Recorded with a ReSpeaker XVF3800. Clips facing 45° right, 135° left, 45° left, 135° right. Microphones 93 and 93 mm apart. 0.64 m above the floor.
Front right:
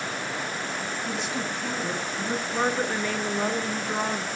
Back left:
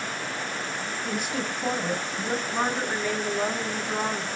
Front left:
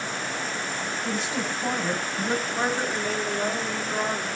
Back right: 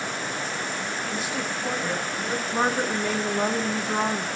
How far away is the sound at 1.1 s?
About 3 m.